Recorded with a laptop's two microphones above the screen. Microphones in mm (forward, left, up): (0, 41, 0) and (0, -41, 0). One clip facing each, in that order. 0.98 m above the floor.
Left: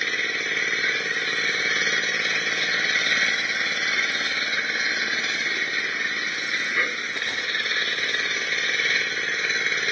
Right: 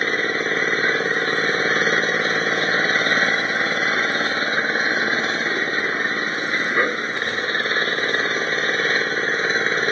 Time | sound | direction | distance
0.0 | an engine running | 40° right (ahead or behind) | ?